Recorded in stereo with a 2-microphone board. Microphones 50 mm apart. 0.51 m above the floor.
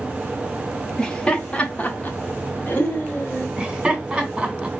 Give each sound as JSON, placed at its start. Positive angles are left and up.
{"t": 1.0, "sound": "laughter", "side_deg": 15, "distance_m": 1.2}
{"t": 3.6, "sound": "laughter", "side_deg": -15, "distance_m": 1.4}